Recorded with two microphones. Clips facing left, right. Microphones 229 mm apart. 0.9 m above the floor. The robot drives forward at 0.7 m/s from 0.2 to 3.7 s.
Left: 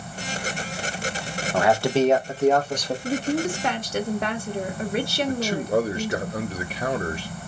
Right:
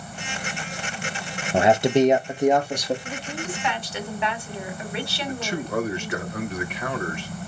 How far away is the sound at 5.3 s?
About 1.2 m.